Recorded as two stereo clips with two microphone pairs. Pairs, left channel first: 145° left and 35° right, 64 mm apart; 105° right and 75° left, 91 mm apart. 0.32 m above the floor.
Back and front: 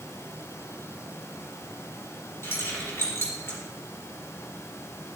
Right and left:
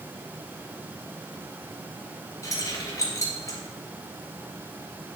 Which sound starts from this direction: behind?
Keys jangling, at 2.4 s.